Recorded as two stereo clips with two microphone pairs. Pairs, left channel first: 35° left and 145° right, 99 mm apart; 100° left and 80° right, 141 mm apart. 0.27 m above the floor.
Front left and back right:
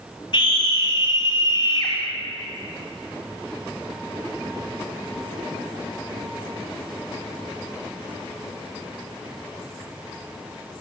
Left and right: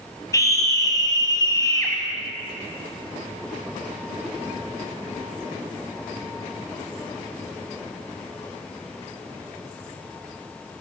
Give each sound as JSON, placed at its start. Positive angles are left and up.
{"t": 0.3, "sound": "a scream", "azimuth_deg": 40, "distance_m": 1.7}